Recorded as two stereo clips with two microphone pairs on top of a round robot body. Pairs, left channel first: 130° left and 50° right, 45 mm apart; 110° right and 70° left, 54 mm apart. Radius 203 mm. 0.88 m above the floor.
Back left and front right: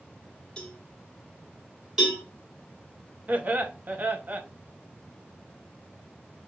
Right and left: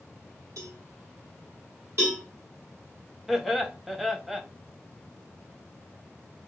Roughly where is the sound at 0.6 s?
Ahead left.